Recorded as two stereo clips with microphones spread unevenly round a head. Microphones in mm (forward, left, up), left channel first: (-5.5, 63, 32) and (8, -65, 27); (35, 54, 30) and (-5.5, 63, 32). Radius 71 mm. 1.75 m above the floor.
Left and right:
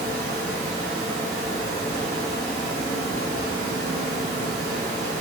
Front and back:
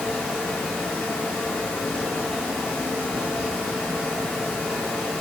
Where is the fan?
45° left, 1.1 m.